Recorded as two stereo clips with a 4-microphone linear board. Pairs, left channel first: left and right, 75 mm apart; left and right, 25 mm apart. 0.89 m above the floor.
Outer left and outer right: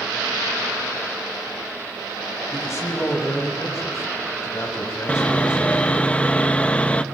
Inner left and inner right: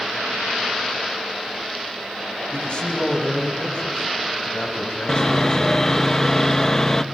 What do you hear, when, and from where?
2.5 s a man speaking: 40° left (ahead or behind), 5.5 m
5.1 s sawing: 20° left (ahead or behind), 1.0 m